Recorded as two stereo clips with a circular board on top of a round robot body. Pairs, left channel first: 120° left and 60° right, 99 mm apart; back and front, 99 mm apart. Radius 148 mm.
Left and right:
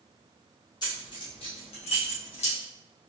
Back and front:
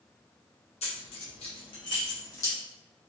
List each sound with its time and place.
0.8 s keys jangling: 165° left, 1.6 m; by 2.5 s 125° left, 1.7 m